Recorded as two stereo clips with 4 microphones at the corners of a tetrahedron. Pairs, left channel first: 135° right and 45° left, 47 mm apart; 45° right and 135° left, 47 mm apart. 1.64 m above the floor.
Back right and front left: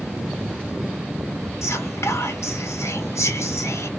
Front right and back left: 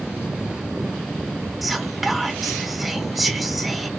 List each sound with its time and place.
1.6 s whispering: 135° right, 1.0 m